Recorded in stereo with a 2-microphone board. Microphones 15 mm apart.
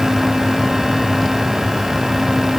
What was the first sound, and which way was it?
Only background noise.